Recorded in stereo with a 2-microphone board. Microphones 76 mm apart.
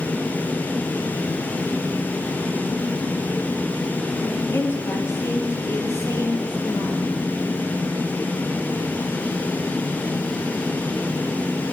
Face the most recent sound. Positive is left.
turn(degrees=45)  # may be behind; listen again after turning